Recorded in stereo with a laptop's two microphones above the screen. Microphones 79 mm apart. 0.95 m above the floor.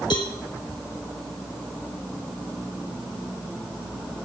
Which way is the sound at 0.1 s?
80° left.